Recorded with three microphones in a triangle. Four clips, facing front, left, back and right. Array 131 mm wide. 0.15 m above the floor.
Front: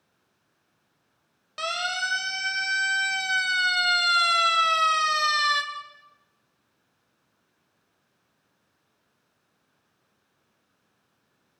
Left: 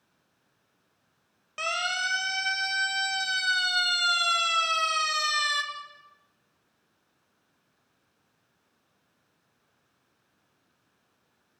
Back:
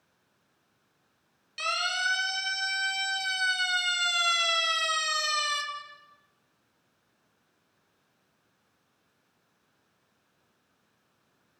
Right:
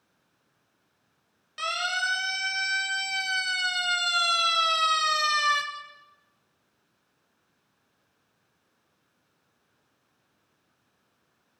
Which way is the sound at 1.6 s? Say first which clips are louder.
Right 1 dB, front 2 dB; 40° left.